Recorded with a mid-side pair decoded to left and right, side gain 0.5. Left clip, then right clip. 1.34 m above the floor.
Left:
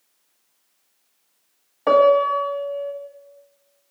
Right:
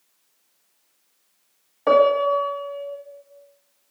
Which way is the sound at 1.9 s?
15° left.